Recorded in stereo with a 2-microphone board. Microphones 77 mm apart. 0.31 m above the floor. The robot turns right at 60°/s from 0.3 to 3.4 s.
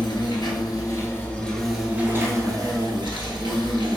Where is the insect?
100° left, 1.1 m; by 4.0 s 75° right, 1.1 m.